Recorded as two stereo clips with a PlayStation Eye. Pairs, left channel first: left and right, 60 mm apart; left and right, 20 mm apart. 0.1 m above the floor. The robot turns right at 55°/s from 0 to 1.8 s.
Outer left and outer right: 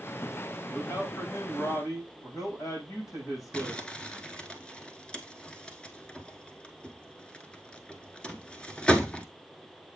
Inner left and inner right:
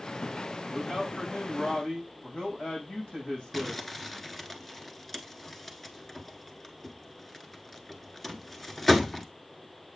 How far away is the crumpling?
About 0.8 m.